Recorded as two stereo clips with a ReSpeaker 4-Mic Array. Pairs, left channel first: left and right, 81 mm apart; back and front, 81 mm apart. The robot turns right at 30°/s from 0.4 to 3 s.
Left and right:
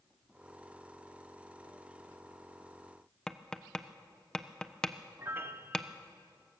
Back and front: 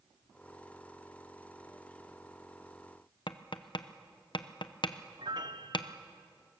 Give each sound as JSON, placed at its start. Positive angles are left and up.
{"t": 3.3, "sound": "tapping", "azimuth_deg": 170, "distance_m": 0.8}
{"t": 5.2, "sound": "a piano", "azimuth_deg": -30, "distance_m": 1.0}